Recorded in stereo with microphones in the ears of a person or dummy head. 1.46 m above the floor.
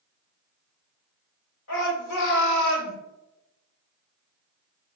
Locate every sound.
1.7 s a shout: 70° left (ahead or behind), 1.9 m; by 3.0 s 80° left, 0.8 m